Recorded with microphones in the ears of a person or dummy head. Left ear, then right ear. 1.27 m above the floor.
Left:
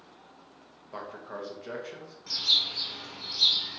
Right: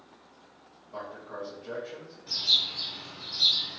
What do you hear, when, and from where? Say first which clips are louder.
0.9 s a man speaking: even; 55° left (ahead or behind), 0.7 m
2.3 s a bird: even; 55° left (ahead or behind), 1.9 m